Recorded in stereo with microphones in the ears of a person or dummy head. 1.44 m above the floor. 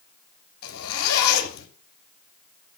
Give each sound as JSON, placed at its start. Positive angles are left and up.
{"t": 0.6, "sound": "a zipper", "side_deg": 85, "distance_m": 6.5}